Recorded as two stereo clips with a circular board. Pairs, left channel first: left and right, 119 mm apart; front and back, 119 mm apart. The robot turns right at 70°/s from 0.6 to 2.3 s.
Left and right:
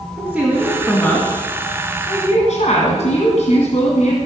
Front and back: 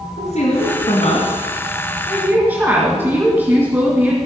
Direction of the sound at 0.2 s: 5° right.